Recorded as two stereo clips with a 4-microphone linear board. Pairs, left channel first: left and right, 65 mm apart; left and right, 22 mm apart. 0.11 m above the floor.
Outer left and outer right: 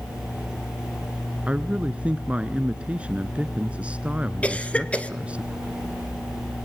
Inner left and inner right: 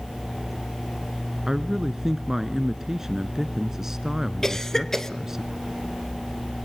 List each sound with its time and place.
1.5 s a man speaking: 20° right (ahead or behind), 1.1 m
4.4 s a cough: 20° left (ahead or behind), 1.3 m